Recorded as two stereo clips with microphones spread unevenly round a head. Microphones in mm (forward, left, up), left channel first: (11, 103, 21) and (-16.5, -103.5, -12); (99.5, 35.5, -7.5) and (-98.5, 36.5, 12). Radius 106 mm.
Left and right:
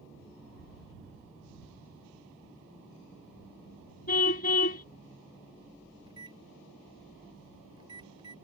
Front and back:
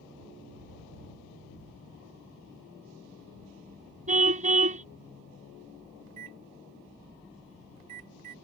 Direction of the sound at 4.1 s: 130° left.